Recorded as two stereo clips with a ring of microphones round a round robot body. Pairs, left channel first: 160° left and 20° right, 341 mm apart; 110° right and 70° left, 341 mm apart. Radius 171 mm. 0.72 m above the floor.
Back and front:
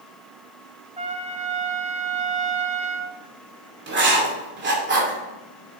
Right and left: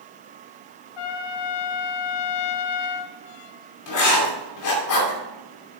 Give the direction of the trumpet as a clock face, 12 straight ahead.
3 o'clock.